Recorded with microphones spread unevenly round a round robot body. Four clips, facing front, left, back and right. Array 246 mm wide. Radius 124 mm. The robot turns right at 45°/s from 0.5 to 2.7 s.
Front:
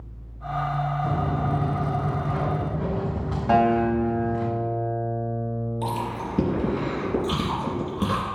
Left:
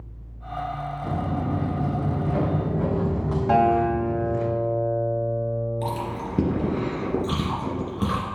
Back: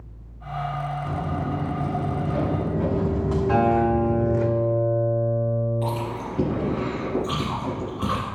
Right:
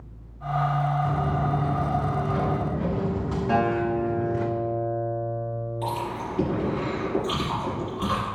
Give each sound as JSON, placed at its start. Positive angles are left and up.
{"t": 1.0, "sound": "footsteps", "azimuth_deg": 50, "distance_m": 2.5}
{"t": 3.5, "sound": "a guitar", "azimuth_deg": 40, "distance_m": 2.5}
{"t": 5.8, "sound": "chewing", "azimuth_deg": 60, "distance_m": 3.0}